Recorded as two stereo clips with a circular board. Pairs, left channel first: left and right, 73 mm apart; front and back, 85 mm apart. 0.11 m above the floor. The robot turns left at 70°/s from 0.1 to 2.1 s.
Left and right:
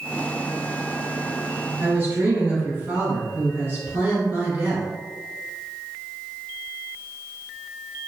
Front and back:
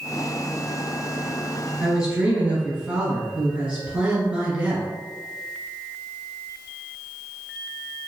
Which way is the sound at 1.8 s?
90° right.